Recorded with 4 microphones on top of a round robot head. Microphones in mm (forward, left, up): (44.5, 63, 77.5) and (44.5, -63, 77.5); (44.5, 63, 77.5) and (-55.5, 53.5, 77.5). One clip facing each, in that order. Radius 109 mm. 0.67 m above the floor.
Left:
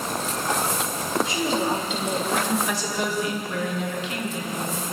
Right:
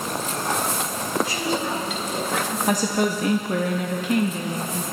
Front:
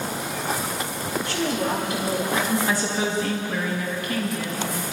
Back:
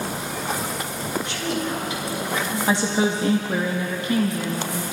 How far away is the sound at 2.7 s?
About 1.0 m.